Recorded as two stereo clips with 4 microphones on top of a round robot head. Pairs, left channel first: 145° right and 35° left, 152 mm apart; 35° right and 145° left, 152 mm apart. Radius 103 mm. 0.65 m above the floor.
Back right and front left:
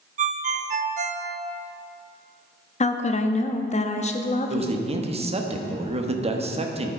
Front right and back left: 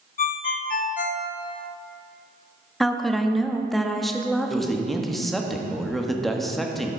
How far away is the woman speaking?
About 1.0 m.